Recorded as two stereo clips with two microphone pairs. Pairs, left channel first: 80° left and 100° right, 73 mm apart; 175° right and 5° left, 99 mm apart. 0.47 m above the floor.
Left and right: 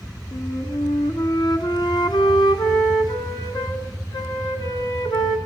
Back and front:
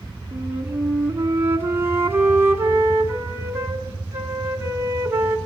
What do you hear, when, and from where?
0.3 s a flute: 70° left, 2 m